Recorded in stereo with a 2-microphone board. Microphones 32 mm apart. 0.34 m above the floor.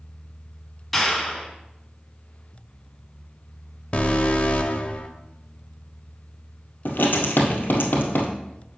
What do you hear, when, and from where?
0.9 s a clap: centre (ahead or behind), 1.6 m
3.9 s an alarm: 35° left (ahead or behind), 0.6 m
6.8 s writing: 80° left, 1.6 m